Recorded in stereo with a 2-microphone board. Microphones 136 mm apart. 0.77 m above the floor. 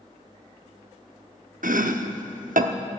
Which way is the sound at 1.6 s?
80° right.